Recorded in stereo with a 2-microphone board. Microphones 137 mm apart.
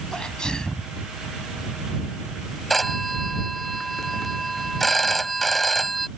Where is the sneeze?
5° left (ahead or behind).